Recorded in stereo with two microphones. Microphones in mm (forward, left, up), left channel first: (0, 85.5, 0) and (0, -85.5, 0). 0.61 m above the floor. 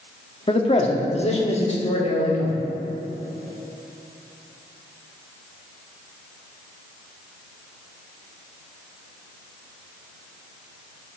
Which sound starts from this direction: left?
A man speaking, at 0.5 s.